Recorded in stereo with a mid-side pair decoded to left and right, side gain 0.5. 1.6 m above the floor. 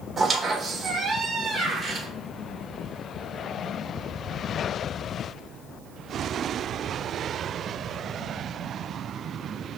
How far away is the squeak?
About 1.5 m.